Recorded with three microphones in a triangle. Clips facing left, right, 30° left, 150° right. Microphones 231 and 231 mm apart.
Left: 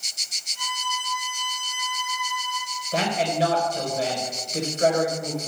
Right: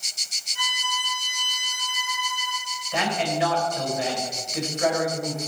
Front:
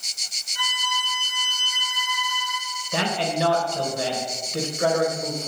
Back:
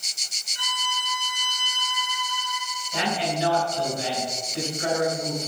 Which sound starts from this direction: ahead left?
A man speaking, at 2.9 s.